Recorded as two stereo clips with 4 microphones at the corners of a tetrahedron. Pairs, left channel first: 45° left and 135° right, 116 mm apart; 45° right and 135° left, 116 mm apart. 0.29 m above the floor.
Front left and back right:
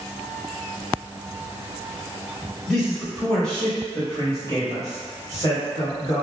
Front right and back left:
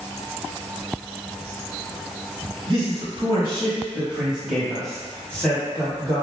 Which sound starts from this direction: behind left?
A man speaking, at 2.7 s.